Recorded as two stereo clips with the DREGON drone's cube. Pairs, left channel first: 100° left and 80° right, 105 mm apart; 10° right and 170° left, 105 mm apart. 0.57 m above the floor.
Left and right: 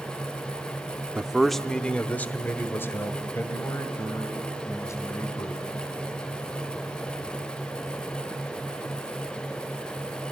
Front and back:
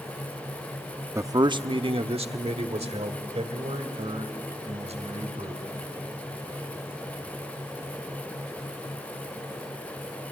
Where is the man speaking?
150° right, 0.6 m; by 5.6 s 160° left, 3.5 m.